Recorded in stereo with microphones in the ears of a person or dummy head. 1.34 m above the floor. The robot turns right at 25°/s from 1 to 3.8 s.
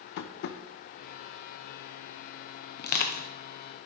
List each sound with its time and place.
0.2 s tapping: 55° left (ahead or behind), 0.6 m
2.8 s crushing: 50° left (ahead or behind), 0.7 m; by 3.3 s 40° left (ahead or behind), 0.7 m